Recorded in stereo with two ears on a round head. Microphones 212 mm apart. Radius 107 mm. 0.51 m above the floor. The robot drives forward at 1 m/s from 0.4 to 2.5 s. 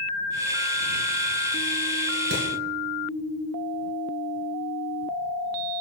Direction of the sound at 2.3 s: 50° right (ahead or behind).